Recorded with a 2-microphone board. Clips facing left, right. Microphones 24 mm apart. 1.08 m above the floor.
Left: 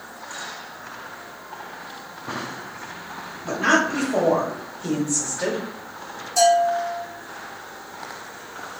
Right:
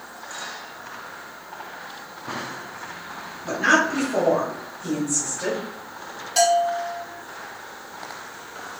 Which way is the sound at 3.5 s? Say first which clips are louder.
Even; 5° left (ahead or behind).